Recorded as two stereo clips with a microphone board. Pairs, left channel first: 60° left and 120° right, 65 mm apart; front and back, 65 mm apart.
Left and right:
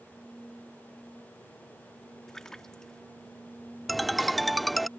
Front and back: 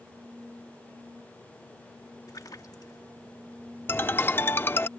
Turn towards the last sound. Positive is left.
turn(degrees=-30)